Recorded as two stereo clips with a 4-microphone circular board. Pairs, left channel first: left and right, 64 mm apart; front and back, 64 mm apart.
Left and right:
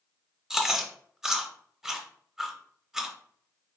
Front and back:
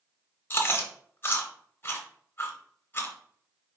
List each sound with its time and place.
0.5 s chewing: 15° right, 0.8 m